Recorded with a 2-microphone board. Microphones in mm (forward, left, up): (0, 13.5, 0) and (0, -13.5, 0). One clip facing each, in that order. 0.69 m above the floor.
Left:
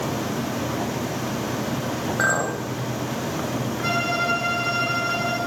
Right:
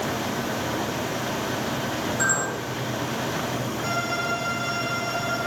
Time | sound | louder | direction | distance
2.2 | a clink | left 4 dB | 50° left (ahead or behind) | 1.7 m
3.8 | a violin | left 5 dB | 55° left (ahead or behind) | 6 m